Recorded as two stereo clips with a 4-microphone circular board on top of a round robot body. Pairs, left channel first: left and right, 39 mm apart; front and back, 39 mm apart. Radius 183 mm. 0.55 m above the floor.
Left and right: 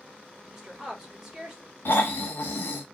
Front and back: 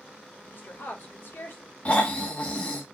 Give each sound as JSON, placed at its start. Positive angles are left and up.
{"t": 0.5, "sound": "a woman speaking", "azimuth_deg": -15, "distance_m": 2.0}
{"t": 1.9, "sound": "snoring", "azimuth_deg": 60, "distance_m": 0.8}